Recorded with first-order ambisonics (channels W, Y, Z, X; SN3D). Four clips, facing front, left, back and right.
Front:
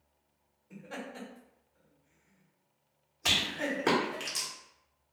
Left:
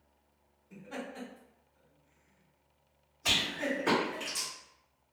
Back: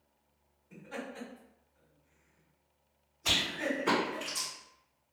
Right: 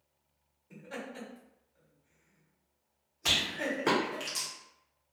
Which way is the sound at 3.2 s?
30° right.